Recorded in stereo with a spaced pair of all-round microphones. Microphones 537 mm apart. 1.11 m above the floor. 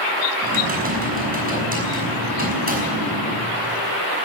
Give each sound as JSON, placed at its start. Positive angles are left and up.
{"t": 0.4, "sound": "typing on a keyboard", "side_deg": -15, "distance_m": 5.5}